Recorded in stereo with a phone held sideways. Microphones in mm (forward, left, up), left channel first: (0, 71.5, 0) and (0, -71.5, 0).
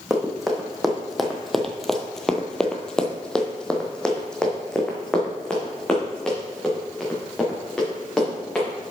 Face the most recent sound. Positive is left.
turn(degrees=5)  # may be behind; listen again after turning